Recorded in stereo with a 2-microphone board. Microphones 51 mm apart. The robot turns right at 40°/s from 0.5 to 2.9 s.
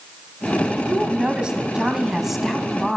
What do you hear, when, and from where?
0.9 s a woman speaking: 20° right (ahead or behind), 1.2 m; by 3.0 s 5° left (ahead or behind), 1.2 m